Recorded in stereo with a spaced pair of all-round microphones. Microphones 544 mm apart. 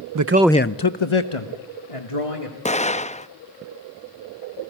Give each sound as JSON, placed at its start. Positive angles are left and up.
{"t": 0.1, "sound": "a man speaking", "side_deg": -40, "distance_m": 0.7}
{"t": 2.6, "sound": "an explosion", "side_deg": 15, "distance_m": 0.5}